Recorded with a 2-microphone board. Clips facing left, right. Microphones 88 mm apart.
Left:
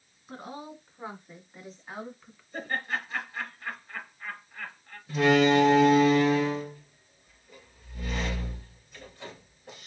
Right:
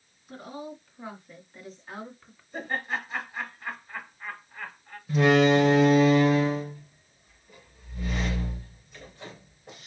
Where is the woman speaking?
30° left (ahead or behind), 2 m; by 2.4 s 5° right (ahead or behind), 1.6 m.